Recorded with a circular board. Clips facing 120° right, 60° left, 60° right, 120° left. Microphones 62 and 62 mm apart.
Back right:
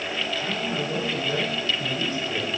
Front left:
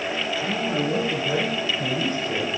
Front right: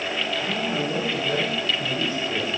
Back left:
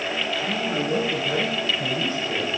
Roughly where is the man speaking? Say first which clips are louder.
Front left 3 dB, back left 1 dB; ahead left.